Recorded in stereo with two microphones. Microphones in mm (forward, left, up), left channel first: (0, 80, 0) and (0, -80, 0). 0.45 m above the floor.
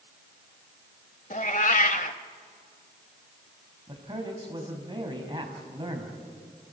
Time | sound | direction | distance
1.3 | a cat meowing | 55° left (ahead or behind) | 0.8 m
3.9 | a man speaking | 30° right (ahead or behind) | 3.5 m